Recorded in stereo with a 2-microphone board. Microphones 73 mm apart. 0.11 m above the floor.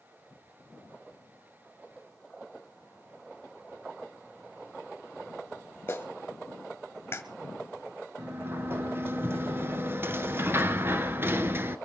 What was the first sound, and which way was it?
A clap, 30° left (ahead or behind).